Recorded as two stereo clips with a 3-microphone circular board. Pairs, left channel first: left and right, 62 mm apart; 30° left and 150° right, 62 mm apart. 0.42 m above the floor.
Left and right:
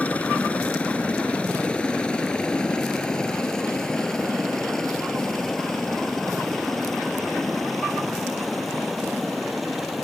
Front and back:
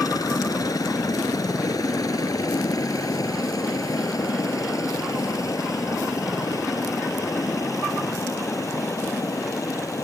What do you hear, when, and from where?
0.0 s a helicopter: 25° left; by 10.0 s straight ahead